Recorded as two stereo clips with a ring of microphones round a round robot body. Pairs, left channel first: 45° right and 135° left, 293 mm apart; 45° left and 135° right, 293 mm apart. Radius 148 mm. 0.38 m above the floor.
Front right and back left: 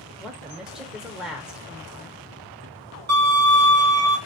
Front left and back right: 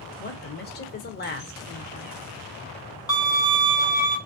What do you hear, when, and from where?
0.2 s a woman speaking: 50° left, 0.9 m
3.1 s a violin: 110° left, 1.5 m